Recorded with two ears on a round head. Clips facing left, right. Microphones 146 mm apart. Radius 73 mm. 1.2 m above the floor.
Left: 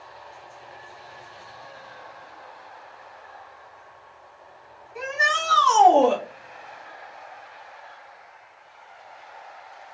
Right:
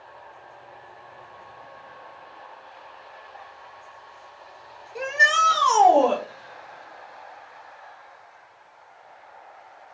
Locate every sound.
5.0 s a shout: 40° right (ahead or behind), 1.0 m; by 6.2 s 20° left (ahead or behind), 0.6 m